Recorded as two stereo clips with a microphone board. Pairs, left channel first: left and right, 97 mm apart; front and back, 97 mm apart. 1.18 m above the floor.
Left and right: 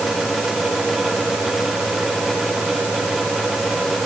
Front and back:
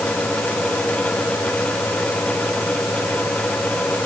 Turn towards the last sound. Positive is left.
No sound to turn to.